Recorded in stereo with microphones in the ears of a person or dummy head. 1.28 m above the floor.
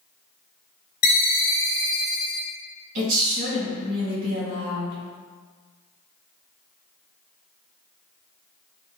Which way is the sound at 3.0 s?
45° right (ahead or behind).